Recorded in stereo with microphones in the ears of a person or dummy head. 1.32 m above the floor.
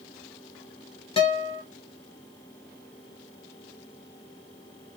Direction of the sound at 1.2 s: 30° left (ahead or behind).